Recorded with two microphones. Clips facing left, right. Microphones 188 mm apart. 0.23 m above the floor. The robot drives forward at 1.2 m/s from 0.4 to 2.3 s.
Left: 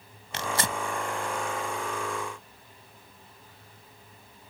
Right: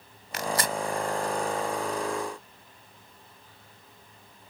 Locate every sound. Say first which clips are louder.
0.3 s tearing paper: right 2 dB; 25° left (ahead or behind)